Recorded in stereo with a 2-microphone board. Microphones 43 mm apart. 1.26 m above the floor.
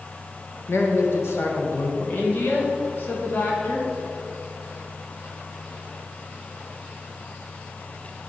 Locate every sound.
0.7 s a man speaking: 65° left (ahead or behind), 1.2 m
2.0 s a woman speaking: 50° left (ahead or behind), 1.8 m